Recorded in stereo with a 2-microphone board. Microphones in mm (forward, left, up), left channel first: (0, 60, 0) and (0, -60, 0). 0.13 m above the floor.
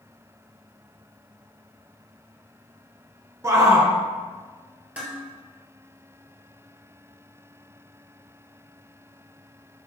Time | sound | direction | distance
3.4 | a shout | 25° right (ahead or behind) | 1.6 m
5.0 | dishes clattering | 10° right (ahead or behind) | 2.0 m